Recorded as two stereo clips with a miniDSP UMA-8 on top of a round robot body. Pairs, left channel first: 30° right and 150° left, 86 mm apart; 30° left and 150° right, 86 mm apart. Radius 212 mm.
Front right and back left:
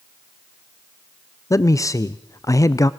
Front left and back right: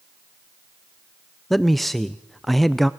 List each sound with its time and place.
1.5 s a man speaking: 60° right, 0.7 m